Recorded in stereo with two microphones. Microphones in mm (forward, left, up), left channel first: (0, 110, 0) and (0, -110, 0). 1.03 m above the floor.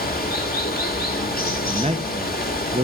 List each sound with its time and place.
0.0 s running water: 45° left (ahead or behind), 1.3 m
1.7 s a man speaking: 30° right (ahead or behind), 0.9 m